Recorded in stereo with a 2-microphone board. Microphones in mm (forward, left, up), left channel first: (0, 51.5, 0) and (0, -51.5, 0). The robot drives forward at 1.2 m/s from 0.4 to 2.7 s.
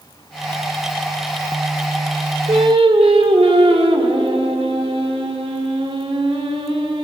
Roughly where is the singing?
Right.